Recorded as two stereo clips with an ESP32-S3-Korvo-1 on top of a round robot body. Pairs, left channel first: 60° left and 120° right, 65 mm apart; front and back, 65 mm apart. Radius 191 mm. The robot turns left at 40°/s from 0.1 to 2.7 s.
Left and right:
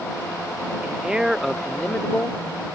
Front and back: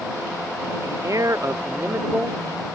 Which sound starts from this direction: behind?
A man speaking, at 0.8 s.